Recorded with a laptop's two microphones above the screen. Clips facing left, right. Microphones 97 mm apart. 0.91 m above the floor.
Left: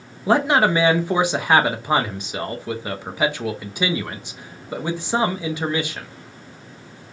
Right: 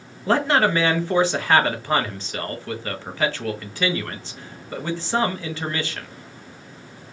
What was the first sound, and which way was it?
A man speaking, 15° left (ahead or behind).